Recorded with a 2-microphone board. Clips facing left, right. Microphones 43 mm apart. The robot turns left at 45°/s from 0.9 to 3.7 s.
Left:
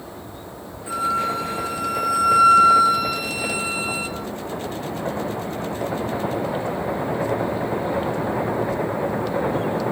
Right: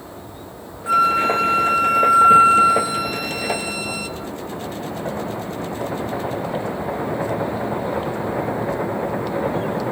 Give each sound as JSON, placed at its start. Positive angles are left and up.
{"t": 0.9, "sound": "a flute", "azimuth_deg": -80, "distance_m": 1.6}